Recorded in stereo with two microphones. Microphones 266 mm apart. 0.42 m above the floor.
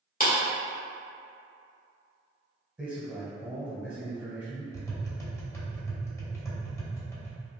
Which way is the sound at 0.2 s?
35° left (ahead or behind).